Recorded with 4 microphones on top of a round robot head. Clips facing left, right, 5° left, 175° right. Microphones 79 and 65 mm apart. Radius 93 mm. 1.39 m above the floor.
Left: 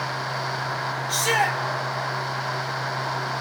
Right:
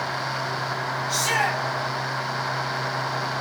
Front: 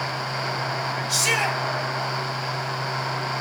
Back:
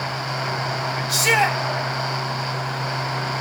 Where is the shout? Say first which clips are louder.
Left 2 dB, back 6 dB; 140° left, 6.5 m.